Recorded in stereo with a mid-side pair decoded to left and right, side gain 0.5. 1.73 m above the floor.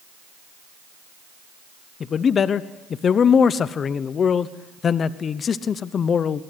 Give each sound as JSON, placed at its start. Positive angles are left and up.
{"t": 2.0, "sound": "a man speaking", "azimuth_deg": 45, "distance_m": 1.0}